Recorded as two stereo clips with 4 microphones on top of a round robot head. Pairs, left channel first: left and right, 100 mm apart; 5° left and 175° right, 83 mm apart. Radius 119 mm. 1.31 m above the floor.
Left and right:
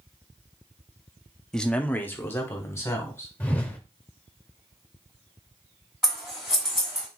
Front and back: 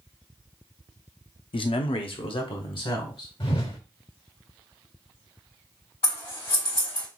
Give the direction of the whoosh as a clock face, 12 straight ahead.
11 o'clock.